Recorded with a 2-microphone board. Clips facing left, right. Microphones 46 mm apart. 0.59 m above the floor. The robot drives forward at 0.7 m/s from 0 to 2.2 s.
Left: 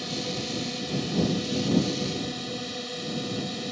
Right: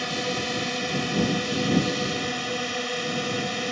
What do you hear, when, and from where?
0.0 s a drone: 55° right (ahead or behind)